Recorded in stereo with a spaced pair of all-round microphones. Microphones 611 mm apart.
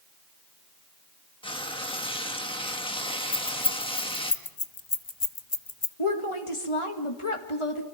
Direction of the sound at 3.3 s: 45° left (ahead or behind).